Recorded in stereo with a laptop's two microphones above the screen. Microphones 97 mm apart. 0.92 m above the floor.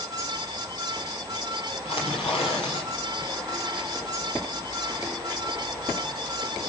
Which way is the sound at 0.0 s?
40° right (ahead or behind).